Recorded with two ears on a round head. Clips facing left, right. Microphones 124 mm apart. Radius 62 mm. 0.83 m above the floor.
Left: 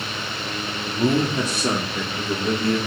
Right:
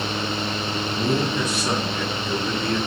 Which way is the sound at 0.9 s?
25° left (ahead or behind).